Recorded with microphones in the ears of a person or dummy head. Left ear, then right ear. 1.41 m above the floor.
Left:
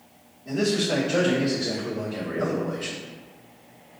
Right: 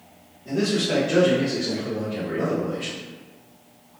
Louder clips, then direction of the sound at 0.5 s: Right 1 dB; 55° right (ahead or behind).